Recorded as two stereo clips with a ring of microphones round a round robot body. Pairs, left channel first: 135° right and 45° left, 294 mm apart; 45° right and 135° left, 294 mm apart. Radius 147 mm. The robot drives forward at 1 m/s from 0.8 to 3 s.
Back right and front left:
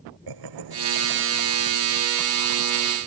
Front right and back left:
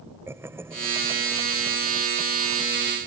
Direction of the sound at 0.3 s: 55° left.